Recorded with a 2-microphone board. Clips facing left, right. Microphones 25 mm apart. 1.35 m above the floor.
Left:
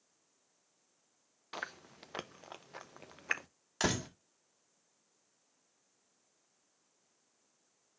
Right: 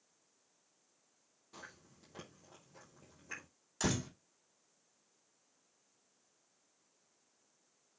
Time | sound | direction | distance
1.5 | chewing | 65° left (ahead or behind) | 0.8 m
3.8 | a door slam | 35° left (ahead or behind) | 1.9 m